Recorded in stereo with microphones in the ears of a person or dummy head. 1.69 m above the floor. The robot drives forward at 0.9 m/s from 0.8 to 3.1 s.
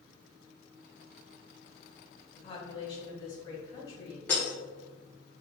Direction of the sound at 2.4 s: 35° left (ahead or behind).